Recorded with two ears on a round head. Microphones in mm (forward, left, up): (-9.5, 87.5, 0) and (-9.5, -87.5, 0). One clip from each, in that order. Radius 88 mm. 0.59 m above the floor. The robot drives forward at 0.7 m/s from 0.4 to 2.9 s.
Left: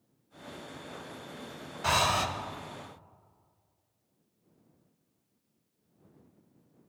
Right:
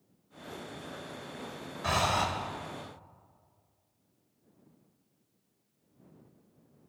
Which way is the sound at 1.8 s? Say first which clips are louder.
Left 2 dB; 35° left (ahead or behind).